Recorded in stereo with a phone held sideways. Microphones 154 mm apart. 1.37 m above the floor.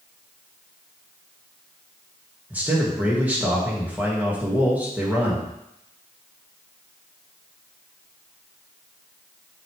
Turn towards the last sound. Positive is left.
turn(degrees=-10)  # may be behind; listen again after turning